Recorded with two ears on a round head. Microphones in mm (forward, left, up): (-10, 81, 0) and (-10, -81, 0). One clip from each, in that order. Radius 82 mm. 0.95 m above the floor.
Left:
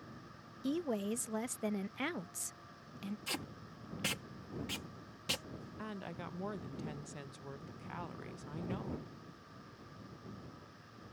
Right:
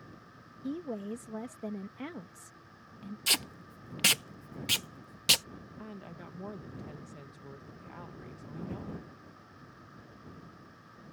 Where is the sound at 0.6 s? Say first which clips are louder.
Left 1 dB; 55° left (ahead or behind).